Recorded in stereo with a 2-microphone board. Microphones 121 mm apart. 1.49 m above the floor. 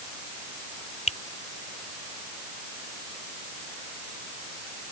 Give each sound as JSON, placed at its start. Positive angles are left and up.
{"t": 1.1, "sound": "a finger snap", "side_deg": 80}